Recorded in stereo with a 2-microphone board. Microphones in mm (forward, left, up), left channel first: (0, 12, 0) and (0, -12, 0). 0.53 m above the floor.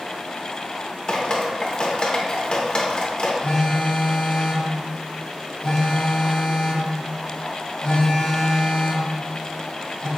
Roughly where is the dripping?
Left.